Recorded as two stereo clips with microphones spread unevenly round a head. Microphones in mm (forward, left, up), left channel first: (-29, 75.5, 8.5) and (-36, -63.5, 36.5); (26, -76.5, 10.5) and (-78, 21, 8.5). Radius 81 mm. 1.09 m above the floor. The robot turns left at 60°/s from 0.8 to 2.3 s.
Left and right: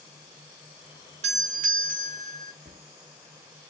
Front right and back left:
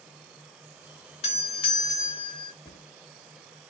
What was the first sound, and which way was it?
A doorbell, 55° right.